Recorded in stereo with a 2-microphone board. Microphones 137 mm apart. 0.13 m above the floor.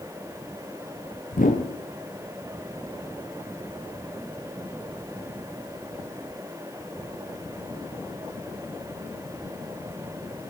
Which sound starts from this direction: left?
A whoosh, at 1.3 s.